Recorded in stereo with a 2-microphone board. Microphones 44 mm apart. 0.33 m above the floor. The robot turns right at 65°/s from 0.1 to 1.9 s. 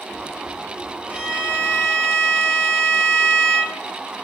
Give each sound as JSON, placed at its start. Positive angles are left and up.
{"t": 1.1, "sound": "a violin", "azimuth_deg": -60, "distance_m": 1.7}